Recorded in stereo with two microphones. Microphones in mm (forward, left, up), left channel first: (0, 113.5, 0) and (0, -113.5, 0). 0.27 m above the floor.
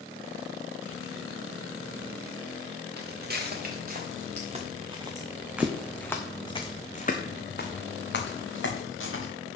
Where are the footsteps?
45° right (ahead or behind), 2 m; by 9.3 s 65° left (ahead or behind), 2 m.